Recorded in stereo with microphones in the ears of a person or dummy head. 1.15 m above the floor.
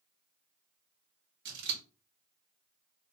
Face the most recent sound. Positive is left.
turn(degrees=-60)  # may be behind; listen again after turning